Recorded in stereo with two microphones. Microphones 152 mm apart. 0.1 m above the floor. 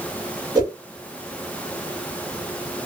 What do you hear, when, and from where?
0.6 s a whoosh: 25° right (ahead or behind), 1.4 m